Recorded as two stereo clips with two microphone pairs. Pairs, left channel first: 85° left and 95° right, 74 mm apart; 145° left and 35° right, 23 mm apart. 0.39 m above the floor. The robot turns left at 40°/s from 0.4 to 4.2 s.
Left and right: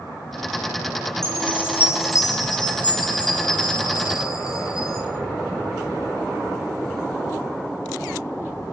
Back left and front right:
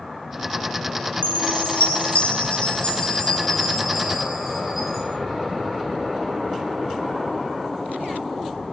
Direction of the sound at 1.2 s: 165° left.